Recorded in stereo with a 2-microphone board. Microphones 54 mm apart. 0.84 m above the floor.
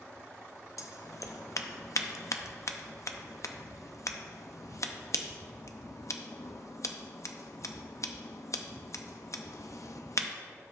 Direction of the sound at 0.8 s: 70° left (ahead or behind).